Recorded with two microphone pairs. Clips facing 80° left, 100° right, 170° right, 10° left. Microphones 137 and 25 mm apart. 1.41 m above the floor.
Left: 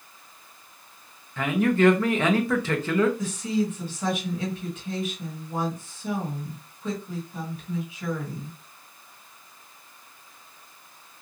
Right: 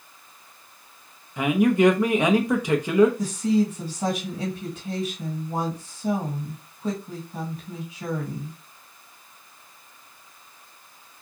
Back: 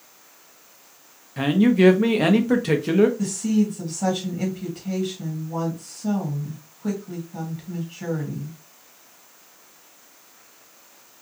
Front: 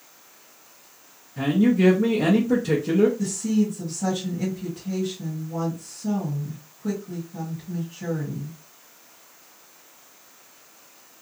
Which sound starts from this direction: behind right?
A woman speaking, at 3.2 s.